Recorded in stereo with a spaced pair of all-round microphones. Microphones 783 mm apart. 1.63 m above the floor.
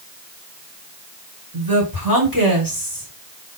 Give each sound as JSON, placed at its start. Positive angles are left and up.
{"t": 1.5, "sound": "a woman speaking", "side_deg": -25, "distance_m": 7.5}